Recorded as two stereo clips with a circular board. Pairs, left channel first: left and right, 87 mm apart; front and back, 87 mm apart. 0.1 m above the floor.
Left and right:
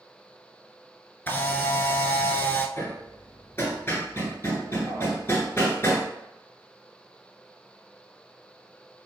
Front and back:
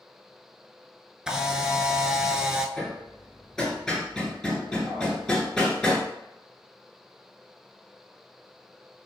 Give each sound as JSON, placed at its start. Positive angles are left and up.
{"t": 1.3, "sound": "a camera shutter", "azimuth_deg": 110, "distance_m": 0.6}
{"t": 2.8, "sound": "hammering", "azimuth_deg": 75, "distance_m": 1.4}